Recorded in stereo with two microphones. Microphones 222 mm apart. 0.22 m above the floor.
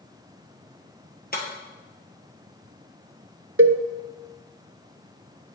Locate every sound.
1.3 s breaking glass: 45° left (ahead or behind), 1.6 m
3.6 s a cowbell: 85° right, 0.6 m